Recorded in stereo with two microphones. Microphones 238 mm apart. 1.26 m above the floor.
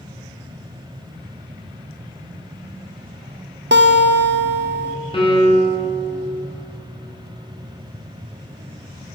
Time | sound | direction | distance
3.7 | a guitar | 50° right (ahead or behind) | 0.6 m
5.1 | a piano | 20° left (ahead or behind) | 2 m